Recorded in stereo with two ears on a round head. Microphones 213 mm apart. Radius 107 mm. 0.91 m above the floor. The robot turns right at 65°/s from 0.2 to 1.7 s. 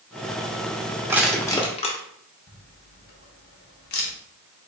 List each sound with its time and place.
1.1 s crushing: 15° right (ahead or behind), 0.8 m; by 2.0 s 25° left (ahead or behind), 0.8 m
2.5 s a camera shutter: 45° left (ahead or behind), 1.0 m